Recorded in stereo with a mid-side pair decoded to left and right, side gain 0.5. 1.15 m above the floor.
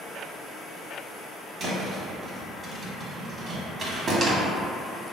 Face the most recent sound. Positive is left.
turn(degrees=-50)